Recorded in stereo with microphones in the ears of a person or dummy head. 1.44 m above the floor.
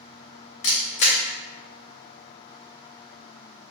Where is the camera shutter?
35° left (ahead or behind), 0.6 m.